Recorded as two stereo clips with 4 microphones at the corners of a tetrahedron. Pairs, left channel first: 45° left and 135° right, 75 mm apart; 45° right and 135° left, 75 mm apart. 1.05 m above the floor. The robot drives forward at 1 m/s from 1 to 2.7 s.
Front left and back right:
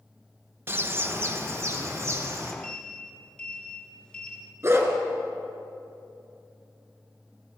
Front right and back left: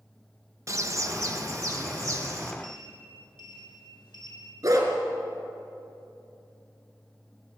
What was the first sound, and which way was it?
A bird, 170° left.